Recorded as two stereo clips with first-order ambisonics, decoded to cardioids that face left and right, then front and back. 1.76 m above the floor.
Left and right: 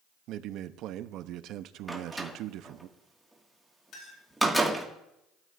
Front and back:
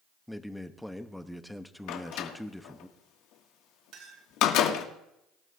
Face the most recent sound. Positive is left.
turn(degrees=140)